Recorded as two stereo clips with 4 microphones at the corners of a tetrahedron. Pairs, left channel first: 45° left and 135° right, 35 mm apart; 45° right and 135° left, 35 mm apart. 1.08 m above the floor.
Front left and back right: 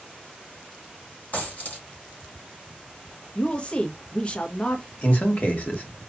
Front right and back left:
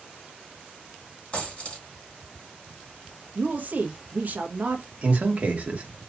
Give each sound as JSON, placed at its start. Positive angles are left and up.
{"t": 1.3, "sound": "a dropped coin", "azimuth_deg": 10, "distance_m": 3.5}
{"t": 3.4, "sound": "a woman speaking", "azimuth_deg": 100, "distance_m": 1.1}
{"t": 5.0, "sound": "a man speaking", "azimuth_deg": 85, "distance_m": 1.3}